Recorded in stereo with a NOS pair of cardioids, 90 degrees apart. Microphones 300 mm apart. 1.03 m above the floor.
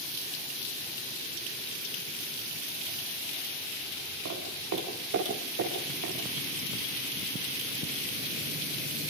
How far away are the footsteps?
About 8 m.